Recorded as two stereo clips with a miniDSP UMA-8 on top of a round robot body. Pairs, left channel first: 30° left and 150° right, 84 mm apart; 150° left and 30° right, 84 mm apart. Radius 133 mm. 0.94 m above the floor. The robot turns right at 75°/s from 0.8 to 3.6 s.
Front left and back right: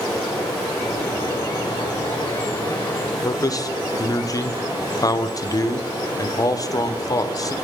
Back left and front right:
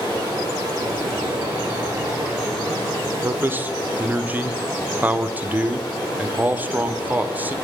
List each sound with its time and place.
0.0 s running water: 65° right, 3.5 m; by 7.7 s 145° left, 3.5 m
3.2 s a man speaking: 5° left, 0.5 m; by 7.5 s 30° left, 0.5 m